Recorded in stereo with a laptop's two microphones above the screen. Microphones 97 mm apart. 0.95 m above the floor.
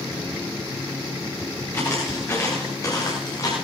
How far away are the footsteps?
About 7 m.